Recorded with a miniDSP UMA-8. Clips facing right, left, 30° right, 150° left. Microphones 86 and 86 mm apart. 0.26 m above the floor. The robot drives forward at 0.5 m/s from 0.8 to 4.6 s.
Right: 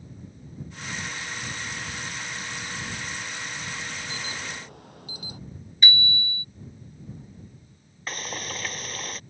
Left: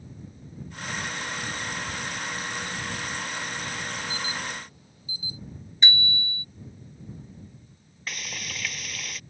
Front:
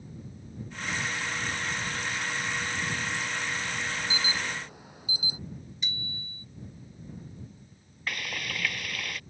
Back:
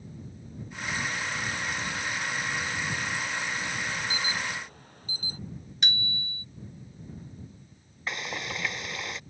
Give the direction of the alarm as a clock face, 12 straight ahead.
4 o'clock.